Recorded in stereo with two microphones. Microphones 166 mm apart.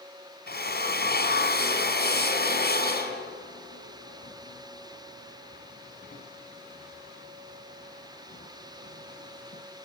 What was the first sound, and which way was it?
A drill, 70° left (ahead or behind).